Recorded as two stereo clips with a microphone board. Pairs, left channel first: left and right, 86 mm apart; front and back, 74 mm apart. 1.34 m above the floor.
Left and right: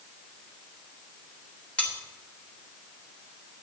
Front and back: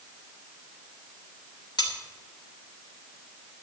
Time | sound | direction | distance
1.8 | cutlery clinking | 15° left | 3 m